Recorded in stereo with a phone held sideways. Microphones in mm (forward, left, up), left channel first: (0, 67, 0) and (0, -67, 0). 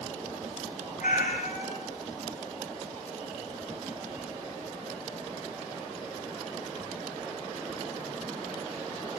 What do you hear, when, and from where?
1.0 s a cat meowing: 85° left, 4 m